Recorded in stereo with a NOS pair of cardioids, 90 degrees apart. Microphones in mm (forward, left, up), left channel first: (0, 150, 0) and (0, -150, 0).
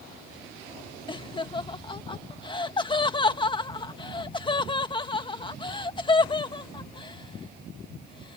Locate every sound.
1.1 s laughter: 20° left